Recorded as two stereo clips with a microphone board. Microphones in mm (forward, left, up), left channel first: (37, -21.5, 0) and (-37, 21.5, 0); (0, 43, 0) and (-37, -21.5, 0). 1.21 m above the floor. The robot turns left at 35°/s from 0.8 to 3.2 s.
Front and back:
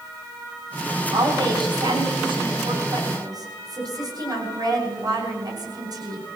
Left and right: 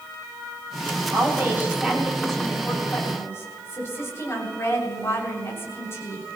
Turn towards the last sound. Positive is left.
turn(degrees=115)